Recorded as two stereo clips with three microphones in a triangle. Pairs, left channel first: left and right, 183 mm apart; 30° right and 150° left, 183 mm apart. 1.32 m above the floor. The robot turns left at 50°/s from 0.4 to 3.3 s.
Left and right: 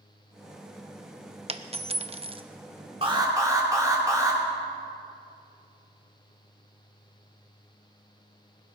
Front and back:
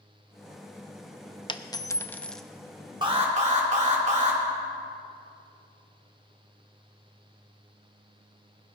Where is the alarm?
145° right, 2.5 m; by 4.4 s 160° right, 2.5 m.